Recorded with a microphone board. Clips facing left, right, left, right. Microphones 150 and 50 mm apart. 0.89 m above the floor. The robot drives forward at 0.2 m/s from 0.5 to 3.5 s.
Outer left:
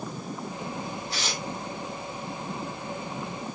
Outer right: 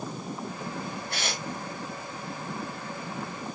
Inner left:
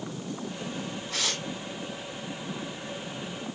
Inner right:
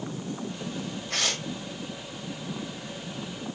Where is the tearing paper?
60° right (ahead or behind), 4 m.